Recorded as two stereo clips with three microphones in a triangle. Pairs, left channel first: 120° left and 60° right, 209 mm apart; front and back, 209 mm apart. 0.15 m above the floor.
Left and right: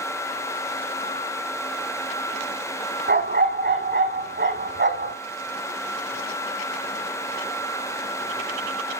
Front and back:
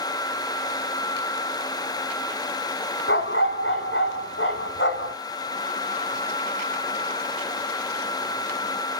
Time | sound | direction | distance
3.1 | a dog barking | 30° right | 2.5 m